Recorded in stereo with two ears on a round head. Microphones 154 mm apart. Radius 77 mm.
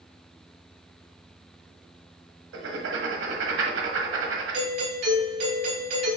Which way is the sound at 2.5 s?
75° right (ahead or behind).